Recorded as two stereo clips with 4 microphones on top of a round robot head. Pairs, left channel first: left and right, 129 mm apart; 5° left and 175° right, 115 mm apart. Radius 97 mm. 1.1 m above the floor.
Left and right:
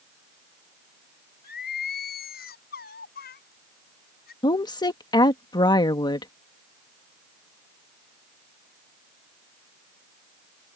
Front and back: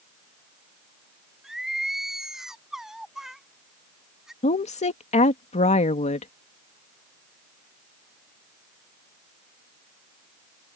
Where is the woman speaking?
30° left.